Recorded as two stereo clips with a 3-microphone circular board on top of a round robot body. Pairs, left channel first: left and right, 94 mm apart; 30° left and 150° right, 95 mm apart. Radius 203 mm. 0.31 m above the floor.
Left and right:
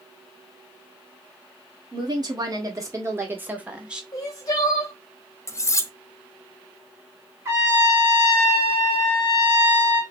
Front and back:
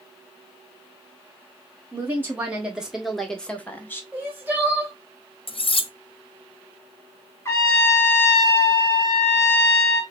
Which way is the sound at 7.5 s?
30° right.